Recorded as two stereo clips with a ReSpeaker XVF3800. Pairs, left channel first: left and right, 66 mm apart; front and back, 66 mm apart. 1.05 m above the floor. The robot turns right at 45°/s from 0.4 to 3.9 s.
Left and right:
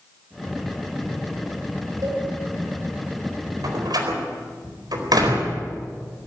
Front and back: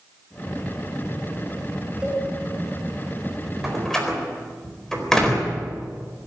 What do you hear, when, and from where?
2.0 s a cowbell: 105° right, 3.5 m; by 2.2 s 100° right, 3.5 m
3.6 s a door slam: 95° right, 4 m; by 5.6 s 80° right, 4 m